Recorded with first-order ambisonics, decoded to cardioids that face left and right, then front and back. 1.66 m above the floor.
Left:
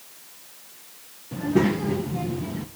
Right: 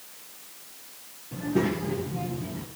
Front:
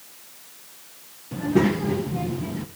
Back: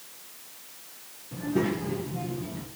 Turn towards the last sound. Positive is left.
turn(degrees=35)